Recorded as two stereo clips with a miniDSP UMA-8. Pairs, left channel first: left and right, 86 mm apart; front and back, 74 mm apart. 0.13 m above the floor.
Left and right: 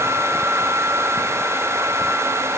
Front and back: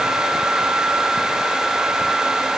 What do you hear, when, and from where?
Only background noise.